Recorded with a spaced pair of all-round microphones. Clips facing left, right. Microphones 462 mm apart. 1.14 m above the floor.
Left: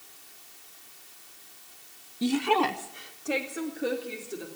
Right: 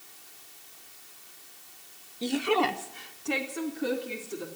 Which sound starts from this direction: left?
A woman speaking, at 2.2 s.